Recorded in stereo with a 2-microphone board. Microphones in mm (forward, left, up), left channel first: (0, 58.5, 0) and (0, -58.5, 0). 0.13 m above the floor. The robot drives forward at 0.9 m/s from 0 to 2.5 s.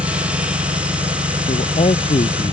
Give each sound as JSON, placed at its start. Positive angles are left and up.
{"t": 0.0, "sound": "an engine running", "side_deg": -60}
{"t": 1.5, "sound": "a man speaking", "side_deg": 70}